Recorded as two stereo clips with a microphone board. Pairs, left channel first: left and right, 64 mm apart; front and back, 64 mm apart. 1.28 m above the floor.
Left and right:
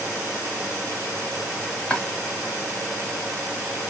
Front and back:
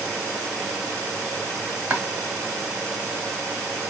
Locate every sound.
1.9 s chopping: 130° left, 1.2 m